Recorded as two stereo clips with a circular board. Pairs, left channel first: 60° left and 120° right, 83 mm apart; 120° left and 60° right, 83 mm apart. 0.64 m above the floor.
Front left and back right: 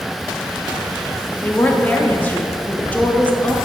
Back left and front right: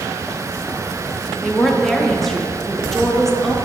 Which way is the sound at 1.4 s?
35° left.